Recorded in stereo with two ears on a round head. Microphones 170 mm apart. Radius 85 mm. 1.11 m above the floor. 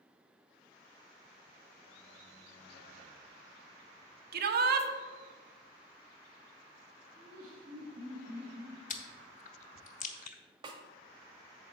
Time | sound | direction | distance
4.3 | a shout | 55° right (ahead or behind) | 1.0 m
7.2 | laughter | 25° right (ahead or behind) | 3 m
8.9 | chewing | 45° left (ahead or behind) | 0.9 m
10.6 | a snare drum | 25° right (ahead or behind) | 1.3 m